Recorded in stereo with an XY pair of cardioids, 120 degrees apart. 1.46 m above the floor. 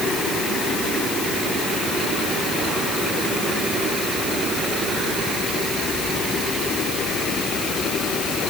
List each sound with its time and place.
Only background noise.